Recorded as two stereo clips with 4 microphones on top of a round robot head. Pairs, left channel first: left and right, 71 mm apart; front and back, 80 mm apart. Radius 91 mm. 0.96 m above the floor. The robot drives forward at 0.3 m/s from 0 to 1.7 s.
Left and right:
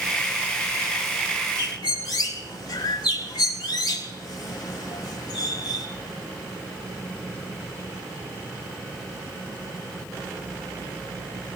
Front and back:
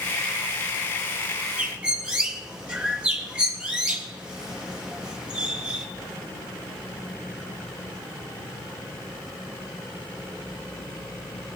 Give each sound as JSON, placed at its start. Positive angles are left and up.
{"t": 1.6, "sound": "a bird", "azimuth_deg": 105, "distance_m": 3.0}